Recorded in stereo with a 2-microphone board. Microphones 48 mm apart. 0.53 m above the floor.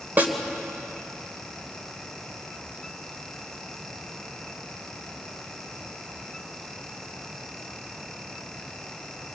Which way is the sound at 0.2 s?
40° right (ahead or behind).